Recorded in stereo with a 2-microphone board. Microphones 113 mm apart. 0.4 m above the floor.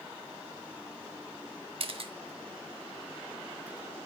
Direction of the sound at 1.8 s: 55° right (ahead or behind).